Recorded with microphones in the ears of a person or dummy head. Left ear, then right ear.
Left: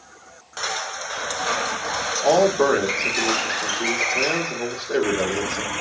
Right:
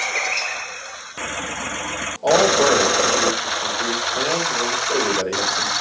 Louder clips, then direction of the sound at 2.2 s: Right 2 dB; 25° left (ahead or behind).